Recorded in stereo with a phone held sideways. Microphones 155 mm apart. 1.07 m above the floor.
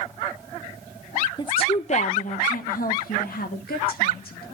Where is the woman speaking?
30° left (ahead or behind), 0.7 m; by 4.4 s 75° left (ahead or behind), 2.5 m.